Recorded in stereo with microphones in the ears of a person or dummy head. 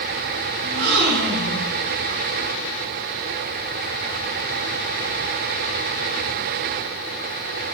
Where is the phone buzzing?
No phone buzzing in this recording.